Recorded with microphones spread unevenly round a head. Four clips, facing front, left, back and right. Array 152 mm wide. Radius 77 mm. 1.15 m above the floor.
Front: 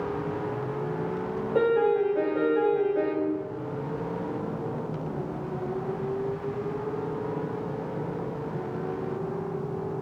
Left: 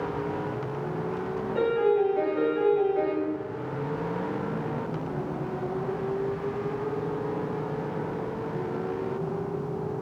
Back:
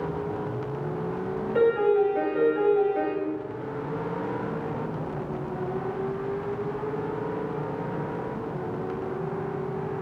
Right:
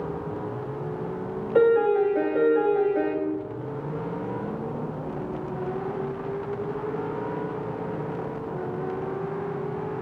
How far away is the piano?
About 0.7 m.